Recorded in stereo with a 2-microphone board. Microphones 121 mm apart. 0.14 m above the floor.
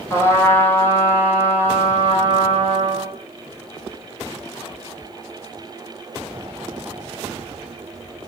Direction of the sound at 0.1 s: 20° left (ahead or behind).